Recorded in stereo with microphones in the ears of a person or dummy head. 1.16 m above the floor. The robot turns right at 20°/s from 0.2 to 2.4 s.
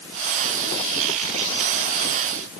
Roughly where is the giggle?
No giggle in this recording.